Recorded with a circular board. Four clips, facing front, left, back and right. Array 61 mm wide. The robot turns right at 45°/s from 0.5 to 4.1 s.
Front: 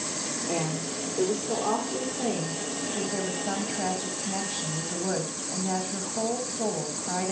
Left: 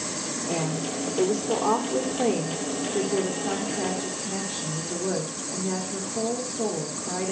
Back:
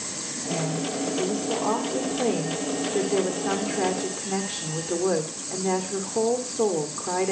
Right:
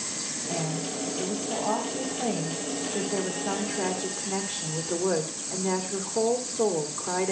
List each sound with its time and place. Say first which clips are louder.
0.5 s a woman speaking: left 2 dB, back 4 dB; 30° left, 2.5 m; by 7.3 s 170° right, 2.5 m